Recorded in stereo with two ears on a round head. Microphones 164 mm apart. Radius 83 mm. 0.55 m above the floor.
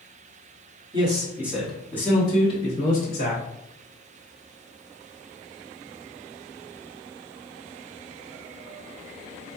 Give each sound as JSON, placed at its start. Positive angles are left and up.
{"t": 0.9, "sound": "a man speaking", "side_deg": -30, "distance_m": 1.2}